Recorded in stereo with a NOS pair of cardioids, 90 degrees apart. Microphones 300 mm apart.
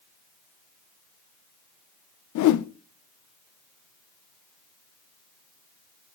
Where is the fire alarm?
I don't hear a fire alarm.